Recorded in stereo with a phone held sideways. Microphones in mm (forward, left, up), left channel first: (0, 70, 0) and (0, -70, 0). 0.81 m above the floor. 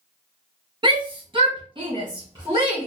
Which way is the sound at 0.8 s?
35° right (ahead or behind).